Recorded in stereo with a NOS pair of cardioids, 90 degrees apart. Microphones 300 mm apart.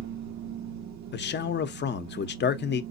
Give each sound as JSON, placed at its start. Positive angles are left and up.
{"t": 0.0, "sound": "a machine running", "azimuth_deg": -65, "distance_m": 0.7}
{"t": 1.1, "sound": "a man speaking", "azimuth_deg": 35, "distance_m": 0.6}